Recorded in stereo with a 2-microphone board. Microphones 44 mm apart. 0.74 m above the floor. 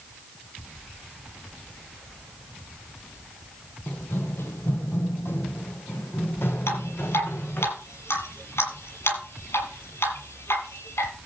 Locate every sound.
3.9 s running footsteps: 60° left (ahead or behind), 1.5 m
6.7 s dripping: 80° left, 6.5 m